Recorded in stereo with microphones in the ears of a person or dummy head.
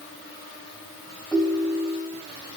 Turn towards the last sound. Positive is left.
turn(degrees=0)  # may be behind; listen again after turning